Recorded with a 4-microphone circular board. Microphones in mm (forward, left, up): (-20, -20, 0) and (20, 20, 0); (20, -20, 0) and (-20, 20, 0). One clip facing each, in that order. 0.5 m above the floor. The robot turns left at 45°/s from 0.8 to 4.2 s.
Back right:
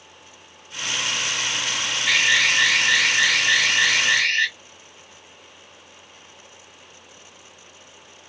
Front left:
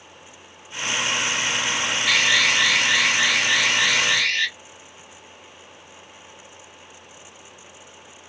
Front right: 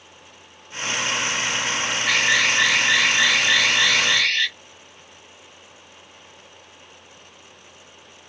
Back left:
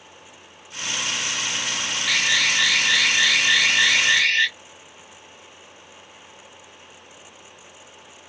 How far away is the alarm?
About 1.9 m.